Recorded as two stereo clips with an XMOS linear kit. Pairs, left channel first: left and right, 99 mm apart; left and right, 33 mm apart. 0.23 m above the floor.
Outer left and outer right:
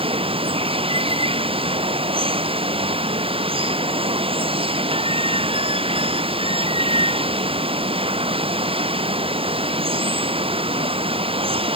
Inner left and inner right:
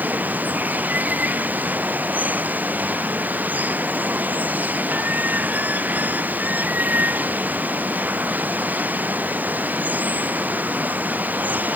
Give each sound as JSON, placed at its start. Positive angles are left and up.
{"t": 0.0, "sound": "running water", "side_deg": -65}